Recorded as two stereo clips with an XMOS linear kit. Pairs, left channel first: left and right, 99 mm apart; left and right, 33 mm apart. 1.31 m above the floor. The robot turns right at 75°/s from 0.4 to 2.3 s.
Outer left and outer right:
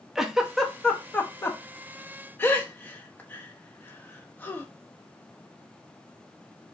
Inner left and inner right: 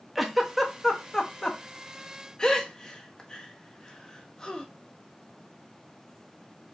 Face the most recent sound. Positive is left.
turn(degrees=20)  # may be behind; listen again after turning